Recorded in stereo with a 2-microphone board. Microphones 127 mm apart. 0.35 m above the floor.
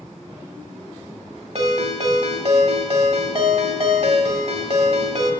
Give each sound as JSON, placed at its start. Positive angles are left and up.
{"t": 1.6, "sound": "a ringtone", "side_deg": -55, "distance_m": 1.3}